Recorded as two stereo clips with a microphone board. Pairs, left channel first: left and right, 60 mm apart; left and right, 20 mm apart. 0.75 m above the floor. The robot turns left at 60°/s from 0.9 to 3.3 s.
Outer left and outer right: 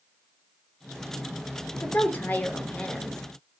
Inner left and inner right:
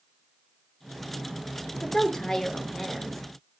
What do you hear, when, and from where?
1.8 s a woman speaking: 100° left, 0.6 m; by 3.2 s 15° left, 0.6 m